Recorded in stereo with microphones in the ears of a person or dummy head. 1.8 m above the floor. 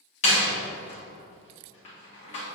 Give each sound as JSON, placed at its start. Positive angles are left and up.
{"t": 0.2, "sound": "a door slam", "side_deg": 45, "distance_m": 1.8}